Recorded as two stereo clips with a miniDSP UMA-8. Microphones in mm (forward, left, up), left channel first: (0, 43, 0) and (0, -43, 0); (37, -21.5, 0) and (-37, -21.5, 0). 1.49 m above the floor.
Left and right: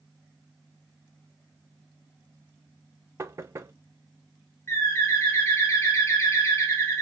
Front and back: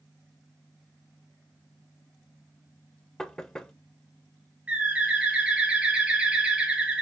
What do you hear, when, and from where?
3.2 s knocking: 75° right, 0.5 m
4.7 s a bird: 120° left, 0.9 m